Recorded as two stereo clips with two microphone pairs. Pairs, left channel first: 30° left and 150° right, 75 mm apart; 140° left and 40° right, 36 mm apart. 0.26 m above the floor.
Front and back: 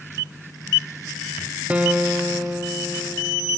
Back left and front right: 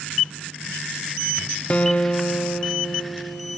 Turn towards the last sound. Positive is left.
turn(degrees=145)